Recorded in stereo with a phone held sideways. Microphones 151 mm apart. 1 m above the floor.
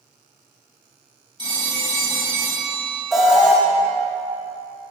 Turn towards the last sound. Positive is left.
turn(degrees=0)  # may be behind; listen again after turning